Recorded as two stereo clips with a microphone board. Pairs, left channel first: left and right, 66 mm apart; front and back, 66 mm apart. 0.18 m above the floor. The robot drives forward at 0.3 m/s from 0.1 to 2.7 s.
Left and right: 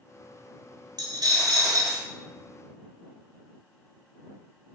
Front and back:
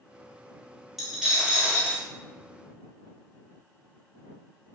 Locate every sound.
1.0 s a dropped coin: 90° right, 0.8 m; by 2.0 s 110° right, 0.9 m